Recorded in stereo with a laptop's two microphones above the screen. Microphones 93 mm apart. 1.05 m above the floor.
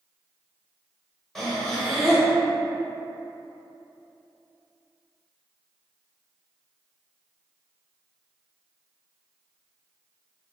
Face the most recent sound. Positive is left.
turn(degrees=0)  # may be behind; listen again after turning